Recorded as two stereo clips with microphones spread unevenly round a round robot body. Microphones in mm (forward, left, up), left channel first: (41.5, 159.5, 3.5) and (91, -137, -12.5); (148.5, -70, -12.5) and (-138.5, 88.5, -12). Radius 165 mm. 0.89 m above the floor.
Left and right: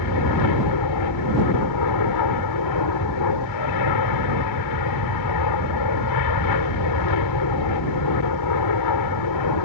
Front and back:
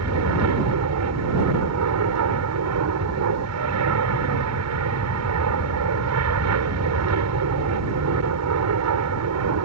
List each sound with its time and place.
0.0 s an aircraft: 115° left